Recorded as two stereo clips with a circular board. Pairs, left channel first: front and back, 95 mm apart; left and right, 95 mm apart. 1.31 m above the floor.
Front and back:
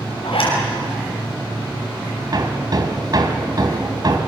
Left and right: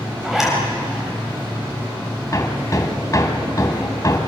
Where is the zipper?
5° right, 7 m.